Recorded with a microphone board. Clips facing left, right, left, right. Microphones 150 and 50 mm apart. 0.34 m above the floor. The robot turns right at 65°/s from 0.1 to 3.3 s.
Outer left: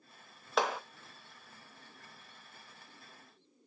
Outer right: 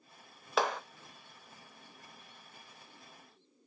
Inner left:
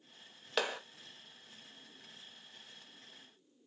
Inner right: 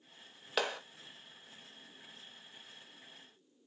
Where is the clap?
Centre (ahead or behind), 0.6 m; by 0.8 s 5° left (ahead or behind), 0.6 m.